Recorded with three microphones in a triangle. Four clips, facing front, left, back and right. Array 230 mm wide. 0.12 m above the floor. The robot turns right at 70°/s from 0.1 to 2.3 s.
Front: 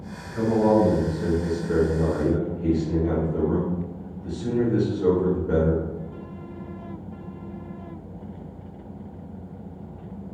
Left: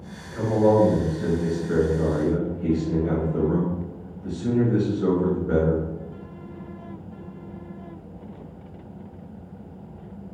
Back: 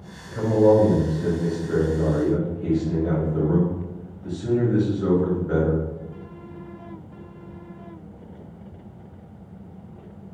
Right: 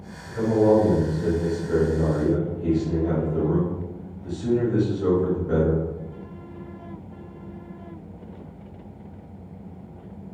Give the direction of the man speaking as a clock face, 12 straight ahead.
6 o'clock.